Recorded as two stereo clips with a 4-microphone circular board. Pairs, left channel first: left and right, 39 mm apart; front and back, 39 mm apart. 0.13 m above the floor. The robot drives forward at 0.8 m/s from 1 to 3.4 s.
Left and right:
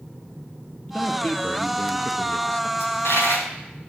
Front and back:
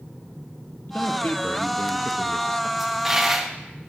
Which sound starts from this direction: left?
A dropped coin, at 2.8 s.